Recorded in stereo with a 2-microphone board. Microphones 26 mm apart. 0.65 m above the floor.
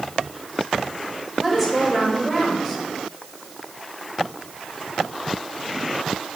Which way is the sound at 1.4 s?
5° right (ahead or behind).